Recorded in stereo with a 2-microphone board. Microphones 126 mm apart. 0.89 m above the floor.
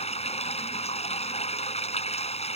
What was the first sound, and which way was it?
Running water, 55° left (ahead or behind).